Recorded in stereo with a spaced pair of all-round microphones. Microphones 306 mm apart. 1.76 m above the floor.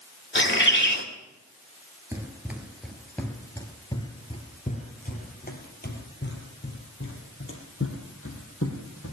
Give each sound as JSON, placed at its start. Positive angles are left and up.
{"t": 0.3, "sound": "a bird", "side_deg": 40, "distance_m": 2.5}
{"t": 2.1, "sound": "running footsteps", "side_deg": -10, "distance_m": 2.0}